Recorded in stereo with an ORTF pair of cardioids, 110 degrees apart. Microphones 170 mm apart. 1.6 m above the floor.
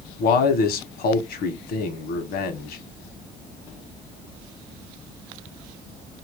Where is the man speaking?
65° left, 1.1 m.